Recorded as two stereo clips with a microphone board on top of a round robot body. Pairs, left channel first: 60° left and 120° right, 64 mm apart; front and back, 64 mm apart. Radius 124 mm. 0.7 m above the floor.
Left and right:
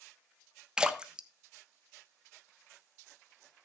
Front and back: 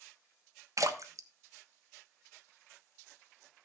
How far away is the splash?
About 1.1 m.